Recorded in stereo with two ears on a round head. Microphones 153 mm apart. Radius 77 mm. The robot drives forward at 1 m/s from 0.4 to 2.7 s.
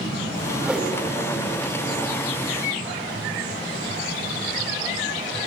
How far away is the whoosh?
About 1.7 m.